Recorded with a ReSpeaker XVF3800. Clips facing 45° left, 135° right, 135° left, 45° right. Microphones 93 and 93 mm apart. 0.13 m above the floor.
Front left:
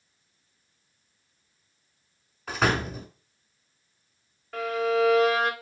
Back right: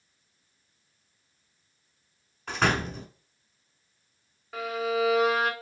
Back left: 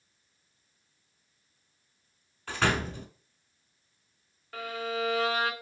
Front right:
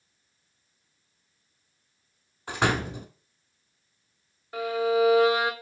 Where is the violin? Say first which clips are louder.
Front left 3 dB, front right 10 dB; 60° right, 0.8 m.